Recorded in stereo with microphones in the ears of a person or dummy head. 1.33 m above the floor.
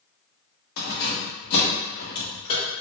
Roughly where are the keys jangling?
Left.